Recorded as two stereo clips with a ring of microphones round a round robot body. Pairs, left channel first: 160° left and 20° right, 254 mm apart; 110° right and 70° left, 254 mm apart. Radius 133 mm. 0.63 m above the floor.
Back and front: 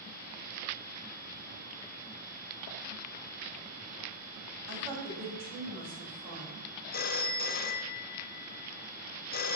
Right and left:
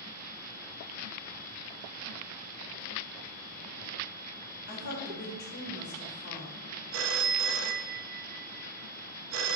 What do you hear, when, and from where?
4.7 s a woman speaking: 60° right, 4.5 m
6.9 s a phone ringing: 105° left, 0.9 m